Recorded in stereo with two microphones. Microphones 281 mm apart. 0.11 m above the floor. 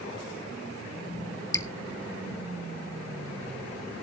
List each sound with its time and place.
1.5 s dripping: 10° left (ahead or behind), 0.8 m